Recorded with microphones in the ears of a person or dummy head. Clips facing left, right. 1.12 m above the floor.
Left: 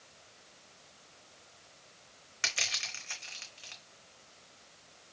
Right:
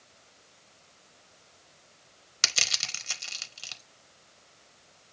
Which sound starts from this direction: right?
Crushing, at 2.4 s.